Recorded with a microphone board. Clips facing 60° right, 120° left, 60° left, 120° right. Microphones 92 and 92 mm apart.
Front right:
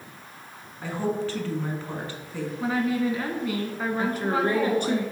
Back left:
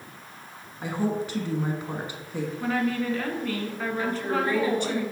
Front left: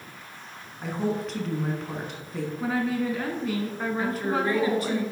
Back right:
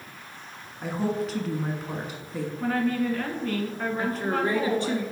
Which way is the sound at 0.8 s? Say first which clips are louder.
Even, back right 1 dB; 155° left.